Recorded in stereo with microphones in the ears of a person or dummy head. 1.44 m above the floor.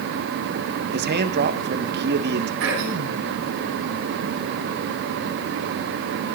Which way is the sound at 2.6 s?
70° right (ahead or behind).